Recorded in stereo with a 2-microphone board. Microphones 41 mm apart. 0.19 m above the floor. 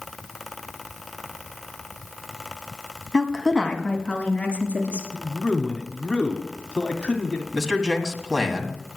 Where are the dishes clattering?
I don't hear dishes clattering.